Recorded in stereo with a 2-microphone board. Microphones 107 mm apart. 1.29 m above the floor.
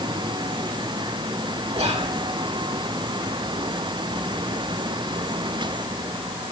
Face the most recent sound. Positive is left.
turn(degrees=-75)  # may be behind; listen again after turning